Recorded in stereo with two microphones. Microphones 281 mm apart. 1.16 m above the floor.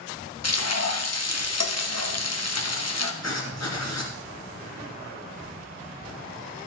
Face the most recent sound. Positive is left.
turn(degrees=70)  # may be behind; listen again after turning